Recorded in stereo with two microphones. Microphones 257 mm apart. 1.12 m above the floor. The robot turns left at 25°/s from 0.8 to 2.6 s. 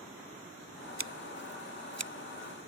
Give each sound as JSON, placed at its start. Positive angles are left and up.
{"t": 1.0, "sound": "scissors", "side_deg": -50}